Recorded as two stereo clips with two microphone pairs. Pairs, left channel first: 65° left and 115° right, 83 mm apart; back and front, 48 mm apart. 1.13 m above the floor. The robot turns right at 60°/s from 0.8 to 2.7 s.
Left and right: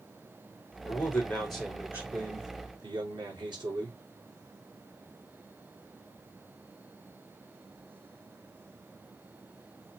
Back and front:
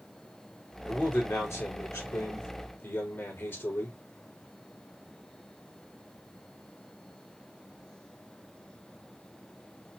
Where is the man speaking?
110° left, 3 m; by 4.0 s 140° right, 3 m.